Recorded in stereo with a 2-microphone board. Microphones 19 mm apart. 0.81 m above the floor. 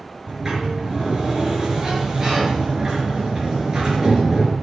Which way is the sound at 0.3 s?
30° right (ahead or behind).